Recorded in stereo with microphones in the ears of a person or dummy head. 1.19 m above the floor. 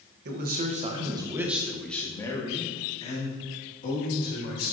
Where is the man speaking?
50° right (ahead or behind), 0.9 m; by 4.7 s 45° left (ahead or behind), 2 m.